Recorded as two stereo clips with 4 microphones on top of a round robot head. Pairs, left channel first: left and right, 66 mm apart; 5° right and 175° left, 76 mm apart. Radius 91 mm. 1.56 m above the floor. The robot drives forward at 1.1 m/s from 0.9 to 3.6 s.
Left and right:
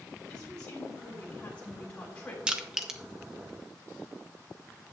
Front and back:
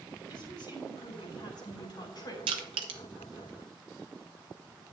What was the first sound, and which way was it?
A woman speaking, 10° left.